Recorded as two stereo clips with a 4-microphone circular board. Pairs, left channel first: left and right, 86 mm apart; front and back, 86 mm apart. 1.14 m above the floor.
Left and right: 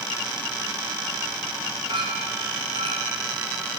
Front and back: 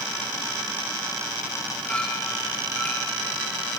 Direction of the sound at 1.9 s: 75° right.